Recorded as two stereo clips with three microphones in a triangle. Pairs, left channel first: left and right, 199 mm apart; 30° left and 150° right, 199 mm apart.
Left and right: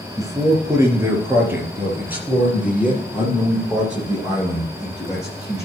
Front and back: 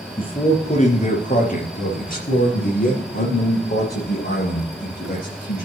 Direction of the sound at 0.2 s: 25° right.